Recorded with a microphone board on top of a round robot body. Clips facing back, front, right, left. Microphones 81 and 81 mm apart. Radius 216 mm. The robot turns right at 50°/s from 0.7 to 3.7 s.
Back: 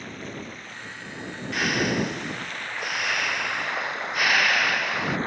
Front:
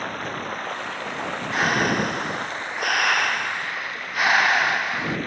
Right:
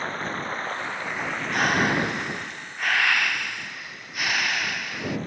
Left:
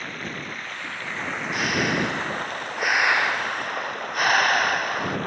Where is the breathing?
55° right; by 5.2 s 55° left.